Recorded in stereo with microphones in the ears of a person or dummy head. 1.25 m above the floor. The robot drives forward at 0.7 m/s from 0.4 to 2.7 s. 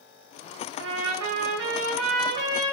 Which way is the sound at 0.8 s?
65° right (ahead or behind).